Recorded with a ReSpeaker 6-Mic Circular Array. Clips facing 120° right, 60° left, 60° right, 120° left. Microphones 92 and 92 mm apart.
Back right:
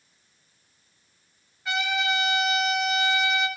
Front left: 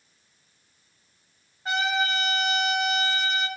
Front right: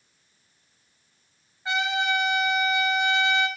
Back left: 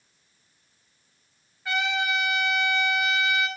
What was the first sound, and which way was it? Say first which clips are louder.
A trumpet: front left 1 dB, front right 1 dB; 10° left.